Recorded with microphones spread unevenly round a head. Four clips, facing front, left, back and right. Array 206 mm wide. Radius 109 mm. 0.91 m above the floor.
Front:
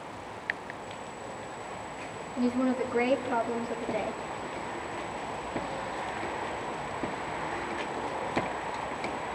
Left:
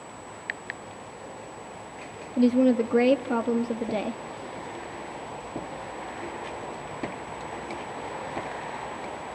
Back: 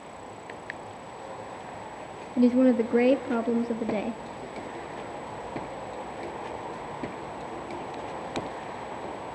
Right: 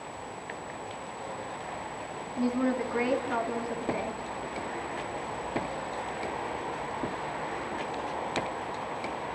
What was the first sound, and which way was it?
A woman speaking, 140° left.